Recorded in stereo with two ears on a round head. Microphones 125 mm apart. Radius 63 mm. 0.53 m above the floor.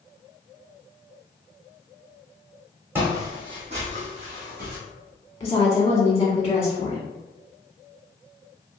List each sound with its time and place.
3.0 s footsteps: 15° right (ahead or behind), 1.3 m; by 4.8 s 75° right (ahead or behind), 1.7 m
5.4 s a woman speaking: 20° left (ahead or behind), 1.2 m